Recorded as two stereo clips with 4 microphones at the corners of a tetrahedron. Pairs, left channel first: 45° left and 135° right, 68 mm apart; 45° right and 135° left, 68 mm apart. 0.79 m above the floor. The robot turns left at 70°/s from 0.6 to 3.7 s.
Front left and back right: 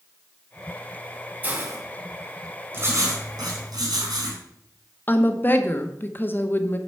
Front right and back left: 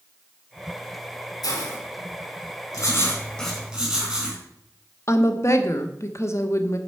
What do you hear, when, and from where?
1.4 s a hiss: 70° right, 3 m; by 1.8 s 95° right, 3 m
2.7 s writing: 75° right, 4.5 m; by 4.4 s 145° right, 4.5 m
5.1 s a woman speaking: 10° right, 1.1 m